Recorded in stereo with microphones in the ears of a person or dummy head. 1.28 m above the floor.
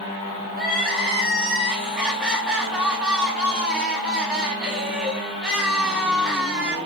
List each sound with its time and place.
0.5 s crying: centre (ahead or behind), 0.8 m